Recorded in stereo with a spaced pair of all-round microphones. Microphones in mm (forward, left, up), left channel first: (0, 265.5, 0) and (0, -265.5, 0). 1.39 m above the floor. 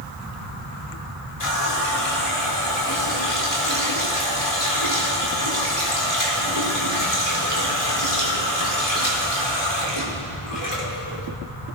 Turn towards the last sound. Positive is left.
turn(degrees=85)